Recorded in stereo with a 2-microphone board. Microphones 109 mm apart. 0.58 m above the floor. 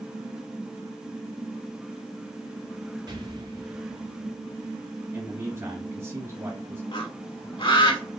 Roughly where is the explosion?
Right.